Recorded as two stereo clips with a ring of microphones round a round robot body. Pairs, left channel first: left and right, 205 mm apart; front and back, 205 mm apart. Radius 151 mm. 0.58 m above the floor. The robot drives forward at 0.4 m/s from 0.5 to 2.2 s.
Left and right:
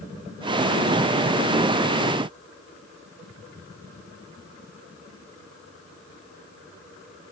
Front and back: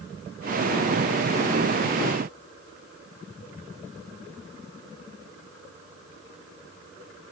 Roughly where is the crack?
No crack in this recording.